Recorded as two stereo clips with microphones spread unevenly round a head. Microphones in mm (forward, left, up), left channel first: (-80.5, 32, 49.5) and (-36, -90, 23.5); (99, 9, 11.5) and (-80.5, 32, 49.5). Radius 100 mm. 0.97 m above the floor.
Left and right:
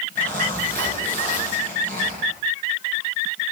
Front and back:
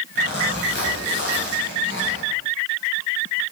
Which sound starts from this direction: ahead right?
A zipper, at 0.1 s.